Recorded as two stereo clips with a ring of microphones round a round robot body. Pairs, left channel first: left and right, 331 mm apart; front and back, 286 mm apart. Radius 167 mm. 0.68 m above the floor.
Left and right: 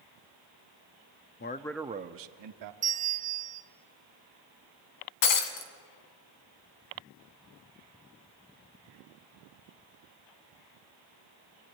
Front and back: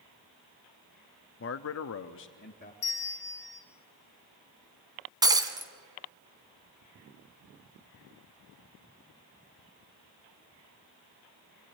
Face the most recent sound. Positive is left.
turn(degrees=105)